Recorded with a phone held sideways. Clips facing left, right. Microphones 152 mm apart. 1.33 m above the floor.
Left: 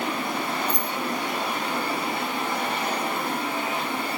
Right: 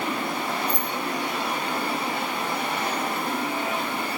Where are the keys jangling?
20° left (ahead or behind), 6 m.